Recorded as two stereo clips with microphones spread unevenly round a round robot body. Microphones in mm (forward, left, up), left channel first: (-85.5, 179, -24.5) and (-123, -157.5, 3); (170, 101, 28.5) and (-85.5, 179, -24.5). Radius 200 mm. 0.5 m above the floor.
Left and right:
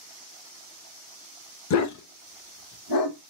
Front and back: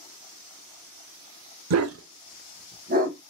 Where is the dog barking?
130° left, 0.6 m; by 3.2 s 105° left, 1.4 m.